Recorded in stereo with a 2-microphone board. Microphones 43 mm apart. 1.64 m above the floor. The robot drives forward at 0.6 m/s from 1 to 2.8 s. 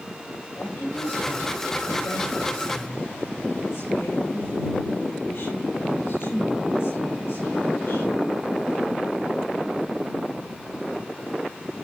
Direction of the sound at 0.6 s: 85° left.